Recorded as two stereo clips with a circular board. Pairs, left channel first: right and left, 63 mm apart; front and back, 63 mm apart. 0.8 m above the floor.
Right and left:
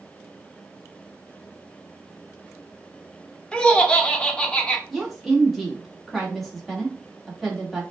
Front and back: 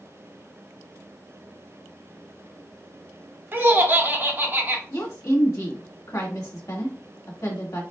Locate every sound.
3.5 s laughter: 155° right, 0.8 m
4.9 s a woman speaking: 5° right, 1.5 m